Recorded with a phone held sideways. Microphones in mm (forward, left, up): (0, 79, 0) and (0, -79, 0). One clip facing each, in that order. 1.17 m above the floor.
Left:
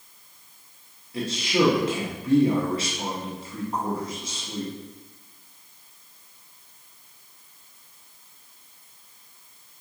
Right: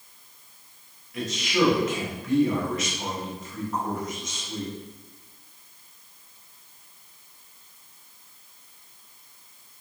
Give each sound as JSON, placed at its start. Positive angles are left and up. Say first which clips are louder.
{"t": 1.1, "sound": "a man speaking", "louder": "left 1 dB", "side_deg": 30, "distance_m": 0.9}